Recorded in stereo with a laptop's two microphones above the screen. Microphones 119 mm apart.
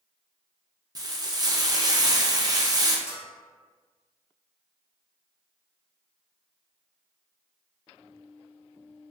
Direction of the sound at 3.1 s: 55° left (ahead or behind).